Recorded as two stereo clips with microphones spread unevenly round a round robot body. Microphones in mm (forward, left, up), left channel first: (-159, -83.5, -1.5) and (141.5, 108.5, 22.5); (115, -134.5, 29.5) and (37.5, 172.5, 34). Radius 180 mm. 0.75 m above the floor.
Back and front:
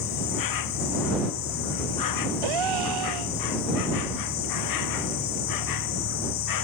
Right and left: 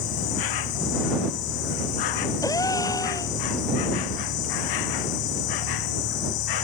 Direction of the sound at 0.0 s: 110° right.